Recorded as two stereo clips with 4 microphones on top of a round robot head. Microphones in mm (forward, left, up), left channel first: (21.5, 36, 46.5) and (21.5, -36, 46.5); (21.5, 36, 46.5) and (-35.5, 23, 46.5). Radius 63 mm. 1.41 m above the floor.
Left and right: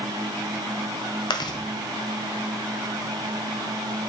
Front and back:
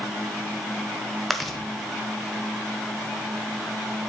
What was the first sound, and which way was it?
Chewing, 100° left.